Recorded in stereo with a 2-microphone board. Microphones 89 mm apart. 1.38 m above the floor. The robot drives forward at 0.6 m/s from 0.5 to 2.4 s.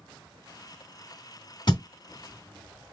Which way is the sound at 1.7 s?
55° left (ahead or behind).